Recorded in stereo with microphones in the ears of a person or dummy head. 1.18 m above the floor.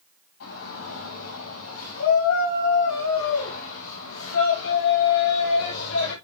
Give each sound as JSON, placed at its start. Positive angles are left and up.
{"t": 0.4, "sound": "a shout", "side_deg": 90, "distance_m": 7.5}